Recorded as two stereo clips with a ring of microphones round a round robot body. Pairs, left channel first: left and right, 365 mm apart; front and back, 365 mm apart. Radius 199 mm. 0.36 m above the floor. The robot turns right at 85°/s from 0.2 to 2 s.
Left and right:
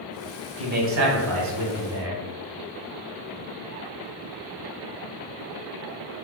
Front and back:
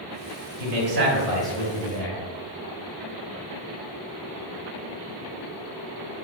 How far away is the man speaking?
About 1.3 m.